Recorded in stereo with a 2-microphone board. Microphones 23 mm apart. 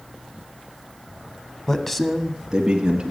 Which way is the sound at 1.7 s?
20° left (ahead or behind).